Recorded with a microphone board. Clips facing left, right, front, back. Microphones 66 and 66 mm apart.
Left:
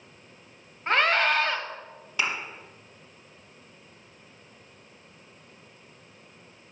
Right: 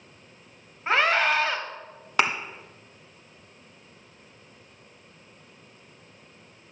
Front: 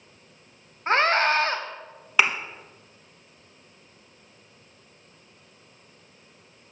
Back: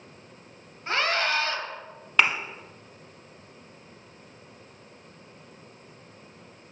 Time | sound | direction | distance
0.9 | a scream | 5° right | 1.1 m
2.2 | a thud | 85° right | 1.0 m